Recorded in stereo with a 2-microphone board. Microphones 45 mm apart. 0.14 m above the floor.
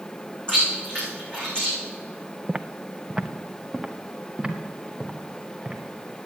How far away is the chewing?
About 7 m.